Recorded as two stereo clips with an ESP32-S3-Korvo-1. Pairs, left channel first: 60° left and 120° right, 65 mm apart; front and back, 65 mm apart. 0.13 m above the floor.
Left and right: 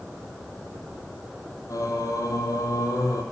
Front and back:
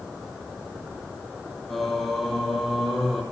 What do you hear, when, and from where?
1.7 s singing: 85° left, 5.5 m